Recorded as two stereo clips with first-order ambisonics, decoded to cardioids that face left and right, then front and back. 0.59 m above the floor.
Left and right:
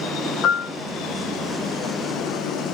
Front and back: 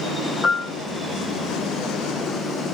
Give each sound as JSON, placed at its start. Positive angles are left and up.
{"t": 0.4, "sound": "a piano", "azimuth_deg": 55, "distance_m": 0.9}